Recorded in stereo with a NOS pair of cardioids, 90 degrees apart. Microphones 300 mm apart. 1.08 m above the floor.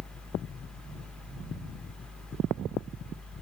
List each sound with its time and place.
0.0 s a fan: 5° left, 0.7 m